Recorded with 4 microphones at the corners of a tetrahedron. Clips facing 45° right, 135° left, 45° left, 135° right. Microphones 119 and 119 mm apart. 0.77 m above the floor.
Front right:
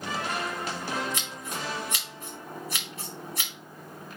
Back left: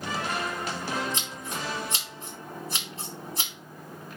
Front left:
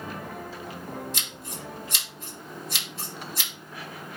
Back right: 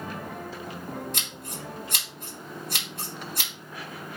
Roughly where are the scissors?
Behind.